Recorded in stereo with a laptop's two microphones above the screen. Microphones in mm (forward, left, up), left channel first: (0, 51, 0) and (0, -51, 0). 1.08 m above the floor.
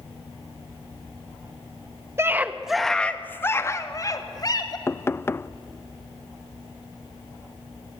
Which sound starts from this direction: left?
Knocking, at 4.9 s.